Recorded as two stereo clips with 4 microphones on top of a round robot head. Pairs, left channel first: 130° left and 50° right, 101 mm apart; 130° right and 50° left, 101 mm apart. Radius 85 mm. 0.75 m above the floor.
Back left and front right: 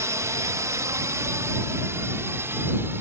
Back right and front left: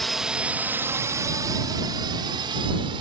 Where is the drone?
40° right; by 3.0 s 15° left.